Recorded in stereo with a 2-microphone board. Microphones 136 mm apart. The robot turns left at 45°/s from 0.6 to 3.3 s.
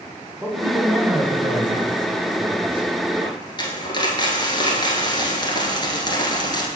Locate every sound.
0.4 s a man speaking: 20° right, 1.5 m; by 2.9 s 125° right, 1.5 m
3.2 s a dropped coin: 30° left (ahead or behind), 1.5 m; by 6.7 s 35° left (ahead or behind), 1.5 m